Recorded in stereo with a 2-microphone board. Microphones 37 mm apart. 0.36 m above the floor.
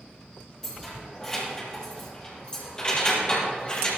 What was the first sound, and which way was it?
Keys jangling, 10° left (ahead or behind).